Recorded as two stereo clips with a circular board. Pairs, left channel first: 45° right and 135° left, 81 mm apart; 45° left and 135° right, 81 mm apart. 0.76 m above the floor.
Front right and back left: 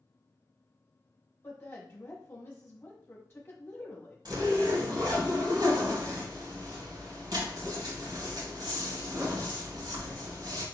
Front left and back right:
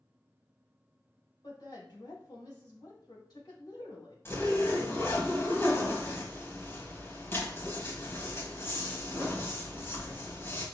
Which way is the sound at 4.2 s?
105° left.